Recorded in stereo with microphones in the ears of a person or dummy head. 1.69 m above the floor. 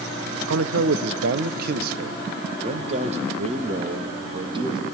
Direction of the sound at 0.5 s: 90° right.